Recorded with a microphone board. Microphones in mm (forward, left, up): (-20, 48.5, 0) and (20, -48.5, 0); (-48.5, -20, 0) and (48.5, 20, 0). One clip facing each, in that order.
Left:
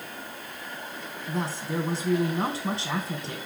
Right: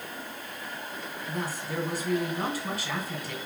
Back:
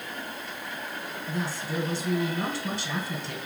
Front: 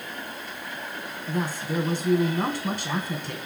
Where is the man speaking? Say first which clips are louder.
Left 4 dB, front 4 dB; 55° left, 2.5 m.